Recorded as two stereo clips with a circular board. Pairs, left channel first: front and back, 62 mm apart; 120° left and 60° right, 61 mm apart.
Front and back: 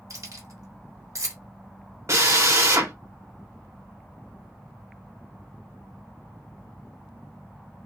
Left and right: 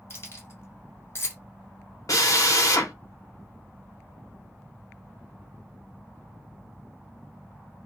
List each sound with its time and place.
0.1 s keys jangling: 160° left, 0.9 m
2.1 s a drill: 145° left, 0.7 m